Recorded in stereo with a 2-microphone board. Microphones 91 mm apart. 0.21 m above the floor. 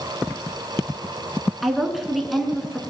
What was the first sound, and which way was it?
A woman speaking, centre (ahead or behind).